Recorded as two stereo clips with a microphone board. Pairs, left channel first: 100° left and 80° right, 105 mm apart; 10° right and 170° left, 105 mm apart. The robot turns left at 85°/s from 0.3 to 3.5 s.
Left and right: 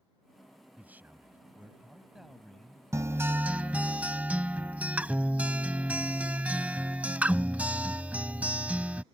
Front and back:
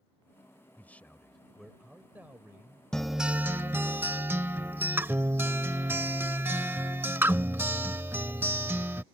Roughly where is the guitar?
Right.